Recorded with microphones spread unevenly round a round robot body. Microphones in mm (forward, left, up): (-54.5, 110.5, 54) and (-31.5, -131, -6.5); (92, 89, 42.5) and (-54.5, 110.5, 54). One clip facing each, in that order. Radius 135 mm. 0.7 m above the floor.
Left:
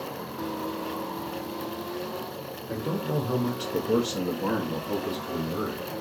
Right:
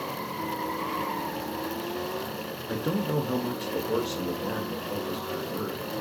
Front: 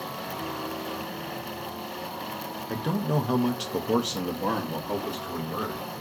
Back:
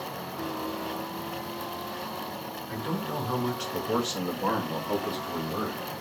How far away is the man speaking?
About 0.6 m.